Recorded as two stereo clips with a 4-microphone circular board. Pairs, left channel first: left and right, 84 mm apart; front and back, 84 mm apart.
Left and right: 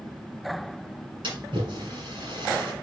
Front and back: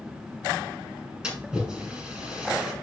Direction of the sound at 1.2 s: 100° right.